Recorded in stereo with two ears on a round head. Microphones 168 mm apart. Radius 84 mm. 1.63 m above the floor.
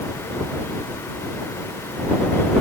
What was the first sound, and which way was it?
Only background noise.